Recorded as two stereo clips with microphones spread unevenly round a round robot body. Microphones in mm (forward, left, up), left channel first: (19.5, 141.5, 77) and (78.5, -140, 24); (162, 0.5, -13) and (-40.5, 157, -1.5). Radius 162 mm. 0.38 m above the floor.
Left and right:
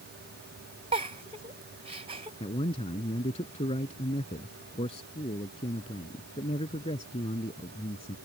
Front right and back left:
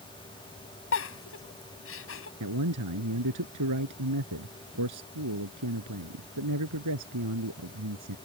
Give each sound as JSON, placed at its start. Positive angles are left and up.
{"t": 0.9, "sound": "a giggle", "azimuth_deg": -10}
{"t": 2.4, "sound": "a man speaking", "azimuth_deg": 175}